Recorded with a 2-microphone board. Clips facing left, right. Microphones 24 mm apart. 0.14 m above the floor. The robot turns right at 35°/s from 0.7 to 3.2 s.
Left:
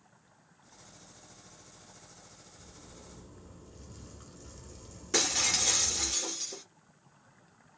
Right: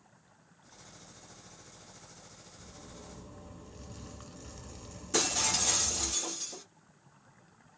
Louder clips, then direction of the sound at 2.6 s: Right 3 dB; 25° right (ahead or behind).